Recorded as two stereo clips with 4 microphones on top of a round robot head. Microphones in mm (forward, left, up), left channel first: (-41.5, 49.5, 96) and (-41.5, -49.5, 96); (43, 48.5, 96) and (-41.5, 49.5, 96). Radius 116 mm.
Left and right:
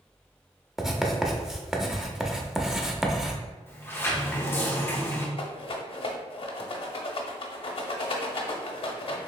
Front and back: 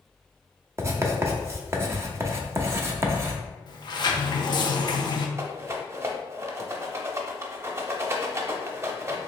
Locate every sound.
0.8 s writing: 170° right, 0.8 m
3.7 s a sliding door: 25° left, 0.7 m
5.4 s a rattle: 120° left, 0.6 m